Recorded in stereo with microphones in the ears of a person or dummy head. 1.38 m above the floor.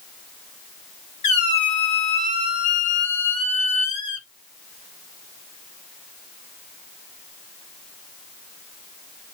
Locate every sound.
1.2 s a squeak: 30° left (ahead or behind), 0.8 m